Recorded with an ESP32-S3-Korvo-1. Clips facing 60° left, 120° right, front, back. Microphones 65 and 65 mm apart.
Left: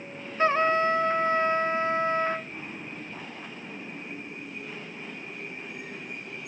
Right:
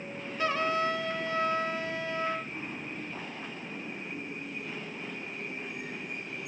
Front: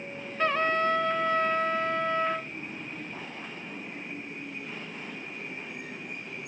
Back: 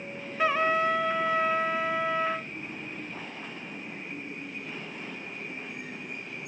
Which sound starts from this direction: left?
A trumpet, at 0.4 s.